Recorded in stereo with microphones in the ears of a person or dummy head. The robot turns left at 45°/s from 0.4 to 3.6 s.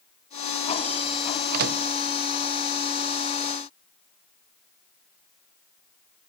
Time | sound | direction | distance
1.5 | a microwave | 50° right (ahead or behind) | 0.5 m